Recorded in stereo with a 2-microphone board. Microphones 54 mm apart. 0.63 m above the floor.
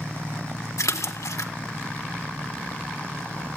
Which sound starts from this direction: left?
A splash, at 0.8 s.